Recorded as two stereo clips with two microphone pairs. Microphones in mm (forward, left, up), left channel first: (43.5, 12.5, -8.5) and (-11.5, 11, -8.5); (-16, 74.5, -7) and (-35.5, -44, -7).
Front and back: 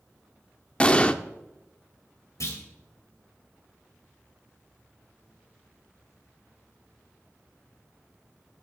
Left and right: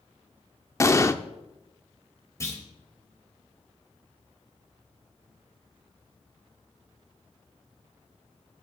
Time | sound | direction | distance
0.8 | an explosion | 45° left | 0.7 m
2.4 | a clunk | 15° left | 3.5 m